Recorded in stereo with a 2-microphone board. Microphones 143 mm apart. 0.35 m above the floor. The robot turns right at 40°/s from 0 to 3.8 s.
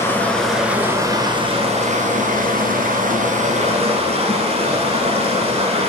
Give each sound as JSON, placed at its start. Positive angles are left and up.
{"t": 0.0, "sound": "running water", "azimuth_deg": 160, "distance_m": 1.2}